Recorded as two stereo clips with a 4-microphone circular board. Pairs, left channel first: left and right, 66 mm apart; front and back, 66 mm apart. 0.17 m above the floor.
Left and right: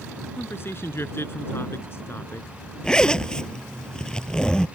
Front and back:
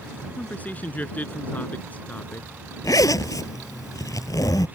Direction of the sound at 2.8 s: 15° left.